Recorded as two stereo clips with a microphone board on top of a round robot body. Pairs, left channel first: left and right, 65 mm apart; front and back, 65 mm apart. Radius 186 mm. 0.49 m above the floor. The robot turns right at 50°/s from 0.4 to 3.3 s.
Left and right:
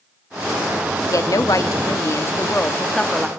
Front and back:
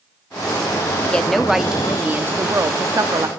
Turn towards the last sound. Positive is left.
turn(degrees=-175)